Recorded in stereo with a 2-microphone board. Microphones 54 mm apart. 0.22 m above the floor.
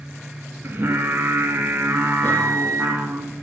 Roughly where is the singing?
Right.